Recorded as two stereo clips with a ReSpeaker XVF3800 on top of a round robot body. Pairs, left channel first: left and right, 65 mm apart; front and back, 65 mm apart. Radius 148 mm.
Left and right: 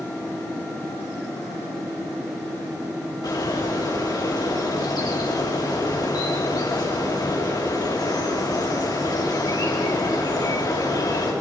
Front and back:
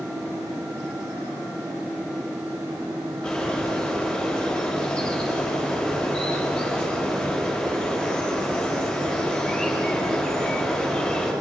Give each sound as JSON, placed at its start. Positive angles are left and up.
{"t": 3.2, "sound": "a bird", "azimuth_deg": 80, "distance_m": 6.5}